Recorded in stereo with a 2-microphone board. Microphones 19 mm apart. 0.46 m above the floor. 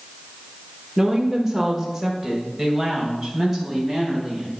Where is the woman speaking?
30° right (ahead or behind), 1.2 m; by 4.6 s 15° right (ahead or behind), 4.5 m.